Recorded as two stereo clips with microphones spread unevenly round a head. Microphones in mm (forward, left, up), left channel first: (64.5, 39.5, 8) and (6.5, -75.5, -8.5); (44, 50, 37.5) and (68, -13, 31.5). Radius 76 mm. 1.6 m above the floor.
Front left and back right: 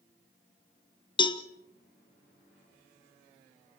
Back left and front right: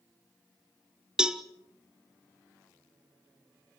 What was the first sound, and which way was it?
A cowbell, 10° left.